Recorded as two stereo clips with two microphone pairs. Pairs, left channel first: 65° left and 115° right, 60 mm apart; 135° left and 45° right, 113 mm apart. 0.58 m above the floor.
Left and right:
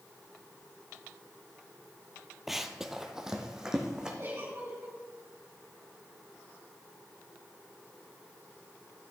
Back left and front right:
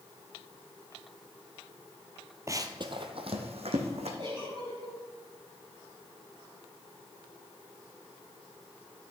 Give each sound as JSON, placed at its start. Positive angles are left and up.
{"t": 2.5, "sound": "running footsteps", "azimuth_deg": -30, "distance_m": 0.6}
{"t": 4.2, "sound": "a giggle", "azimuth_deg": -80, "distance_m": 4.0}